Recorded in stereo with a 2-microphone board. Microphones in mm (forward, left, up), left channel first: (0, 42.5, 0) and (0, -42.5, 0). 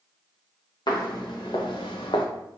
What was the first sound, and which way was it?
Footsteps, 65° left (ahead or behind).